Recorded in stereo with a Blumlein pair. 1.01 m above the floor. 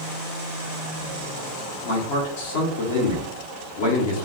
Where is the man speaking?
55° left, 0.9 m.